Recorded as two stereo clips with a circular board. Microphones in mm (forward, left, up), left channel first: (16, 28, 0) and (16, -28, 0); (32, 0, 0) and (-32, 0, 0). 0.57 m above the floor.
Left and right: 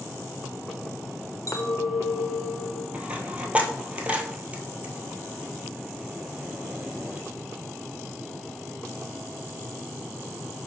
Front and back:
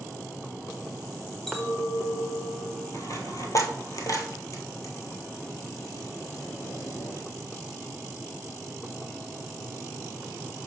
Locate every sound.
1.5 s a clink: 85° left, 1.1 m
2.9 s a dropped coin: 25° right, 1.1 m